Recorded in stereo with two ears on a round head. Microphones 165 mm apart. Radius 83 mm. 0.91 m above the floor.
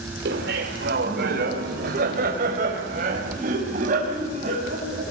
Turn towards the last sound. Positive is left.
turn(degrees=-40)  # may be behind; listen again after turning